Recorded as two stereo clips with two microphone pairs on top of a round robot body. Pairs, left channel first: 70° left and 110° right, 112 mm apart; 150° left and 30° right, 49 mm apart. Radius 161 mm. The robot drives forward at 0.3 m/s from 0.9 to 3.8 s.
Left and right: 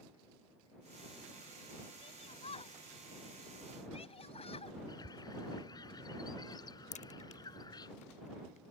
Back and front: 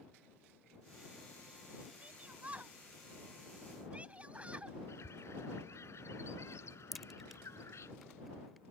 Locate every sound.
2.0 s a shout: 30° left; by 4.8 s 35° left
4.9 s a bird: 120° left
6.9 s a crack: 55° left